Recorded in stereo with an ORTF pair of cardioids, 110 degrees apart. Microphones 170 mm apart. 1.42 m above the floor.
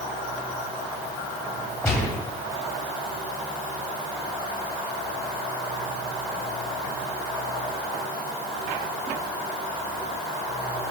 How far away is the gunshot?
About 2.5 m.